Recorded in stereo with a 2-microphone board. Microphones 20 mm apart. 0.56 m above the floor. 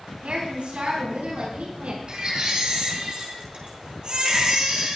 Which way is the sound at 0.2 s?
75° right (ahead or behind).